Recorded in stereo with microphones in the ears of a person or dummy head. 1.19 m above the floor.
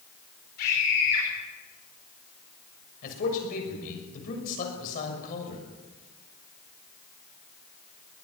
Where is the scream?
60° left (ahead or behind), 5 m.